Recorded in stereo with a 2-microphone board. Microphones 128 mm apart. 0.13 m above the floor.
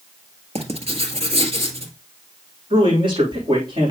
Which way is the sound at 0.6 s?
55° right (ahead or behind).